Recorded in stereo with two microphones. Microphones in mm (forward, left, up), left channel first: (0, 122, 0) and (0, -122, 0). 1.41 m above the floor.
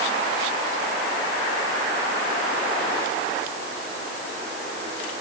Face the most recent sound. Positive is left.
No sound to turn to.